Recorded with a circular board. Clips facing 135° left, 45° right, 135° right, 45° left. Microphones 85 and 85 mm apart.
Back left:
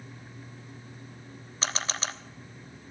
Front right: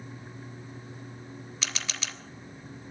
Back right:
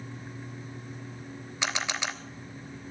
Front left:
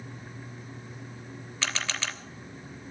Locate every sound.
1.6 s a camera shutter: 160° left, 1.0 m